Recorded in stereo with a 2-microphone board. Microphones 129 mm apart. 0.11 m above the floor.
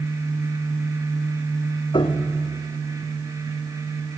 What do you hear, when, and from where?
1.9 s a piano: 35° left (ahead or behind), 1.5 m